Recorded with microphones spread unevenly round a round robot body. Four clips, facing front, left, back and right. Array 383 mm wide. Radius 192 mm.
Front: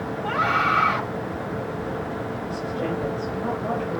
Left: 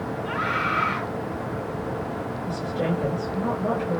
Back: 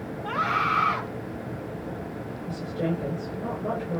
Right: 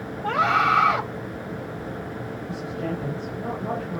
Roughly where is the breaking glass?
I don't hear breaking glass.